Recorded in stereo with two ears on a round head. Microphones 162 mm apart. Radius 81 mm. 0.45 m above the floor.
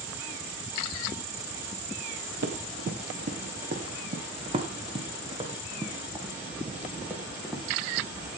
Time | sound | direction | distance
2.4 | running footsteps | 60° right (ahead or behind) | 2.5 m